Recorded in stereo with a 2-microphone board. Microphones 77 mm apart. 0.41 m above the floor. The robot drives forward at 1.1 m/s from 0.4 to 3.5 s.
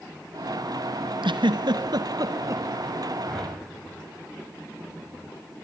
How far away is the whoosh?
About 2.5 m.